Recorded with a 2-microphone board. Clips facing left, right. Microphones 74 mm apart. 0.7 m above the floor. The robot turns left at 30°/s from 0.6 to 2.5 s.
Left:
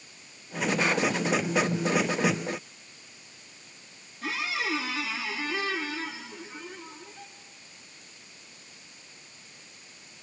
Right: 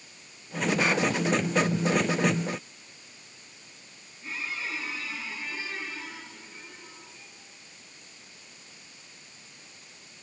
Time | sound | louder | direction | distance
4.2 | a squeak | left 5 dB | 85° left | 3 m